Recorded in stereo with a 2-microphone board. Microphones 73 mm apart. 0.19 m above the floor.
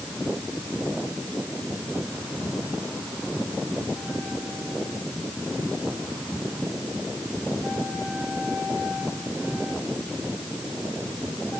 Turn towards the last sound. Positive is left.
No sound to turn to.